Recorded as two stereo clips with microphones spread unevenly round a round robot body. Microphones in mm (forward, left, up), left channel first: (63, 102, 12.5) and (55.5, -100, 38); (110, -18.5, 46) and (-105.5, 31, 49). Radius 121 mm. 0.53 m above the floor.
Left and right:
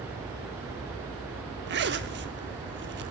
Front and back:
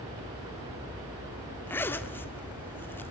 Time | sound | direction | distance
1.7 | a zipper | 90° right | 1.6 m